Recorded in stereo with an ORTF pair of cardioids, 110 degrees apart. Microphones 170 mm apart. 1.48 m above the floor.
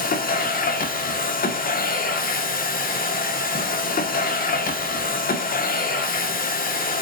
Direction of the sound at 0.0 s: 60° left.